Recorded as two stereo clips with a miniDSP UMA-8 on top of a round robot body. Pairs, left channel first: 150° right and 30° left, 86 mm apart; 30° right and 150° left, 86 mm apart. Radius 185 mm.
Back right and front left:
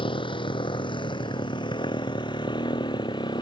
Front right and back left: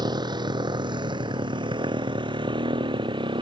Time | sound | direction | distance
0.0 | a motorcycle | 170° right | ?